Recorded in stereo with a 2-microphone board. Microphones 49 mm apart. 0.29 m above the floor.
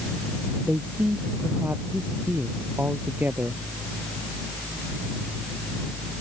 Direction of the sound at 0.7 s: 40° right (ahead or behind).